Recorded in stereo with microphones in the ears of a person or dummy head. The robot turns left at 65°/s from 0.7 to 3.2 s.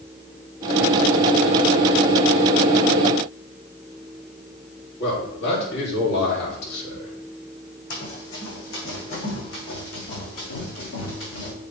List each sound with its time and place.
5.0 s a man speaking: 60° left (ahead or behind), 3 m
7.9 s running footsteps: 70° left (ahead or behind), 3.5 m